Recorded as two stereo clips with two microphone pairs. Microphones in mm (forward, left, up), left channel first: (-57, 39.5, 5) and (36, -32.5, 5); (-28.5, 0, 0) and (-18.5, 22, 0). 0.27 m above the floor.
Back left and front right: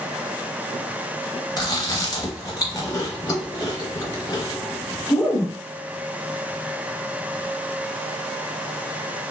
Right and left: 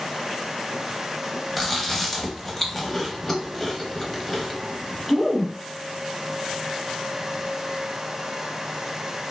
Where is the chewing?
175° left, 0.7 m.